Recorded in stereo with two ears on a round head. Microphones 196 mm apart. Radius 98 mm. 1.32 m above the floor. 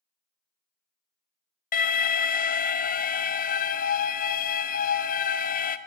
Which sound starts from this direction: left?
An alarm, at 1.7 s.